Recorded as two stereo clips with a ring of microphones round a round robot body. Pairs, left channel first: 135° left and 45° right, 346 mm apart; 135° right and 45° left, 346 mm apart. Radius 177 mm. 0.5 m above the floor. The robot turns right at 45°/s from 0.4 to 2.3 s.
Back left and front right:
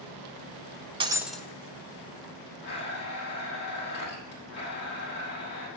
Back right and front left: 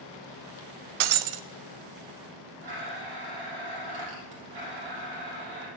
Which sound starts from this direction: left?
A blender, at 2.6 s.